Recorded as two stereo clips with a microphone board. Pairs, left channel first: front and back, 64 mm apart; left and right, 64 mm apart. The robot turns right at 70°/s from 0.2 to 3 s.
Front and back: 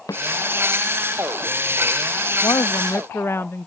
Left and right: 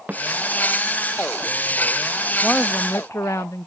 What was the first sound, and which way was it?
A snare drum, 25° right.